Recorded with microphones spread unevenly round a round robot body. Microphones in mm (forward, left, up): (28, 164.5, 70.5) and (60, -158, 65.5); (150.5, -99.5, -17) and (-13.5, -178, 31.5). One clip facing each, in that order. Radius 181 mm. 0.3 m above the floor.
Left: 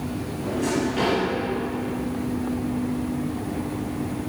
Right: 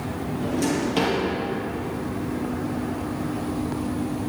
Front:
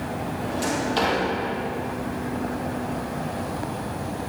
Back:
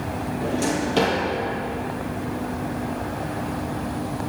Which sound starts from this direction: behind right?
A drawer, at 0.4 s.